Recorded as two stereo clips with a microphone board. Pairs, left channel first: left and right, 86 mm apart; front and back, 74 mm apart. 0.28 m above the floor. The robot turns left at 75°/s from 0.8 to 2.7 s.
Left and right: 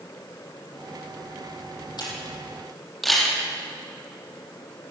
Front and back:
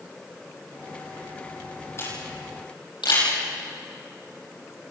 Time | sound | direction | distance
2.0 | a camera shutter | 55° left | 10 m